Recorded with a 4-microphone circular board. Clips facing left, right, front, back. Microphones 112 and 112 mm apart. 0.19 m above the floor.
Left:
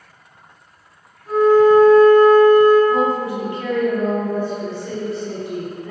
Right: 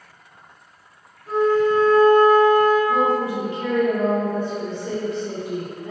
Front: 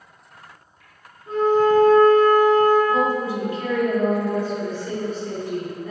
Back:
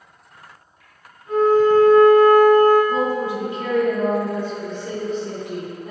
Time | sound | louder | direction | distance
1.3 | a flute | left 6 dB, back 2 dB | 15° left | 1.8 m
2.9 | a woman speaking | left 1 dB, even | 135° right | 1.7 m